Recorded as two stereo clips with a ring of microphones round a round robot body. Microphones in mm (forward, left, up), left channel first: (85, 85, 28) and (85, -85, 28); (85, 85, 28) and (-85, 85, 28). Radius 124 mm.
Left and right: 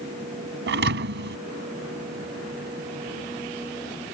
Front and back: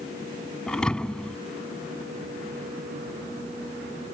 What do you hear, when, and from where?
0.7 s a thud: 85° right